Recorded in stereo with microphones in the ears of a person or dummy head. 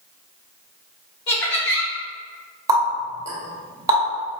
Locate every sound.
1.3 s laughter: 55° left (ahead or behind), 1.1 m
2.7 s a running tap: 20° right (ahead or behind), 1.3 m